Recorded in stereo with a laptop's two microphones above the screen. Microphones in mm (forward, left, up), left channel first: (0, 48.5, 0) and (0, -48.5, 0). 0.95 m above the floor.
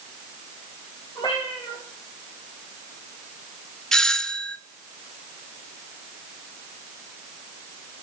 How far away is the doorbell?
About 0.6 m.